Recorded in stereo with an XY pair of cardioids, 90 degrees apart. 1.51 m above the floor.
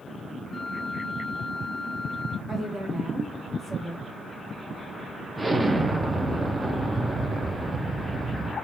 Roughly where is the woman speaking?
Ahead right.